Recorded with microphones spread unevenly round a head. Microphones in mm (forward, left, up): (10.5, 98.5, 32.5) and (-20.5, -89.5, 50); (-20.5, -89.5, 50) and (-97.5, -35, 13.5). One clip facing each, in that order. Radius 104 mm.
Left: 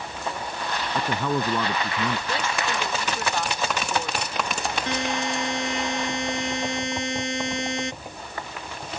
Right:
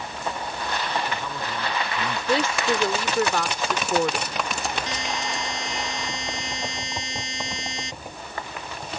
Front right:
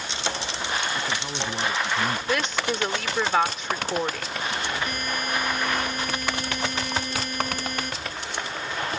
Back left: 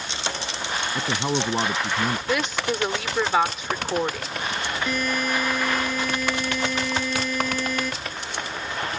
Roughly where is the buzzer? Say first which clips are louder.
Left 4 dB, back left 4 dB; behind left.